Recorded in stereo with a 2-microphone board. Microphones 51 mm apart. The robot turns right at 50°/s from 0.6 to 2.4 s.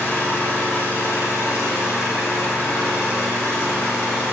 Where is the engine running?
30° left, 3 m; by 4.3 s 120° left, 3 m.